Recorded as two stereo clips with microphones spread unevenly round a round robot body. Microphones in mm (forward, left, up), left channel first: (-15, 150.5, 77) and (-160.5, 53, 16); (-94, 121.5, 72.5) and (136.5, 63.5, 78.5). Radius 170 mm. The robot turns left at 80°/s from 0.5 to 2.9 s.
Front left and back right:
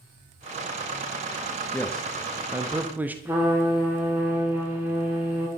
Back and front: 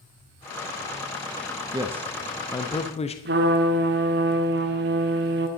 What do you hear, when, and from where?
1.7 s a man speaking: 70° right, 0.9 m; by 3.1 s 165° right, 0.9 m
3.2 s a trumpet: 65° right, 1.1 m